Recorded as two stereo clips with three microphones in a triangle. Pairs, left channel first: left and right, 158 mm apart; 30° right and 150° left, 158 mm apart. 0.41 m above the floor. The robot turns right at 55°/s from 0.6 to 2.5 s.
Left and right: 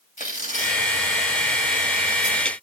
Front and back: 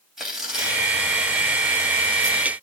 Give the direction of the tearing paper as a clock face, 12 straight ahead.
10 o'clock.